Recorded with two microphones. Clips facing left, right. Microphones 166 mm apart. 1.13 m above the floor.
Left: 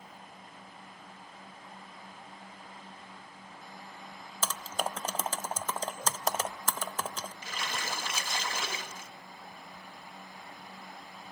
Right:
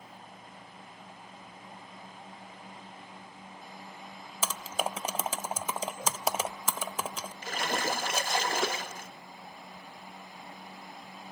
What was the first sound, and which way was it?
Typing on a keyboard, 10° right (ahead or behind).